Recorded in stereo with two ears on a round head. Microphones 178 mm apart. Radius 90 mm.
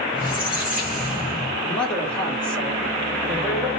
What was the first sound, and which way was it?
A squeak, 5° right (ahead or behind).